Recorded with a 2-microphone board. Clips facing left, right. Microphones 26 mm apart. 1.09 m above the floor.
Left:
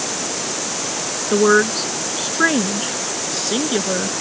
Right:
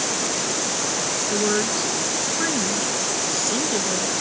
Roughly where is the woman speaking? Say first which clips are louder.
Left 10 dB; left.